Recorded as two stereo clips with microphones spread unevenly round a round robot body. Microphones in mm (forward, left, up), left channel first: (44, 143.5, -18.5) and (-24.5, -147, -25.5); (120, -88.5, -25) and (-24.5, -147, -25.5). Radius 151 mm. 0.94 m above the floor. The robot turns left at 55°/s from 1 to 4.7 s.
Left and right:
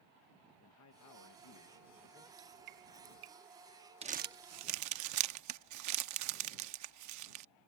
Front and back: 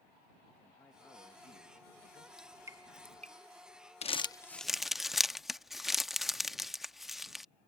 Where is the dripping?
70° right; by 3.3 s 120° right.